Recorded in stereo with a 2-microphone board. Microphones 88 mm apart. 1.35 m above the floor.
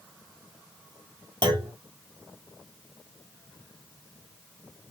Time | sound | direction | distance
1.4 | a clunk | 60° right (ahead or behind) | 1.4 m